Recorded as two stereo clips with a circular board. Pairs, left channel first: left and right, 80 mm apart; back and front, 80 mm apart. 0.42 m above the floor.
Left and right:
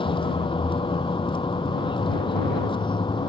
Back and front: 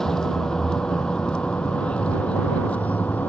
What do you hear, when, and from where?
0.0 s a vehicle: 95° left; by 3.3 s 110° left